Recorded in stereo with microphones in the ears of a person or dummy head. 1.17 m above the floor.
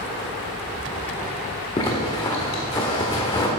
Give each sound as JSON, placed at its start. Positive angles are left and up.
{"t": 1.8, "sound": "a zipper", "side_deg": 15, "distance_m": 1.6}